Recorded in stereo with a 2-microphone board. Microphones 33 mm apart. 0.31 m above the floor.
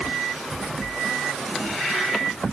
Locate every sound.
Only background noise.